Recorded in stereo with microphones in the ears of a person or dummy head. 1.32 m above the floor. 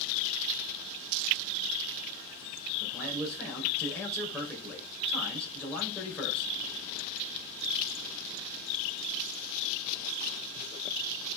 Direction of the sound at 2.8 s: 10° left (ahead or behind).